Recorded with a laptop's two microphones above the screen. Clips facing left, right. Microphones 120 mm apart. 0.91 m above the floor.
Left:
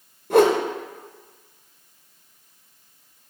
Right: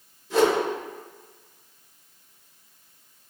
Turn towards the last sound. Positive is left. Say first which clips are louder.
# left 5 dB
turn(degrees=55)  # may be behind; listen again after turning